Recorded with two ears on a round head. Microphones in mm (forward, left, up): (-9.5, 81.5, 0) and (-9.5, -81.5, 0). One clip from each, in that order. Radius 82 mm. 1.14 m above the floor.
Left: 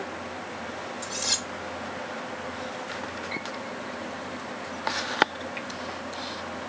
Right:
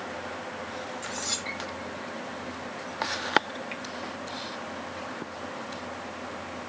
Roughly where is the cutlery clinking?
Left.